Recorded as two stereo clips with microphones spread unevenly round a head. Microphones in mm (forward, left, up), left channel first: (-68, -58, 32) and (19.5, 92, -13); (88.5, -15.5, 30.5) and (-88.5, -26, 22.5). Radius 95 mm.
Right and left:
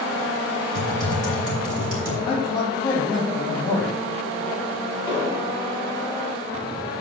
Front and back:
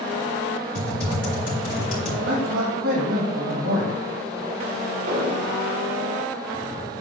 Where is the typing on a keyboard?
50° left, 3 m.